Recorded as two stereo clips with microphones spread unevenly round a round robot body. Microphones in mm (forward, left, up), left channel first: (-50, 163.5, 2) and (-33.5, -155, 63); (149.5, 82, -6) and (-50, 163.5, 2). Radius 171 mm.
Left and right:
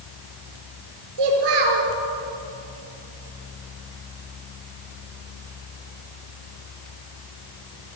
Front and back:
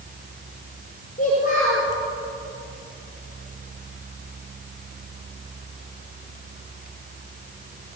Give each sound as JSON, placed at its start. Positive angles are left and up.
{"t": 1.2, "sound": "a child speaking", "azimuth_deg": -90, "distance_m": 5.5}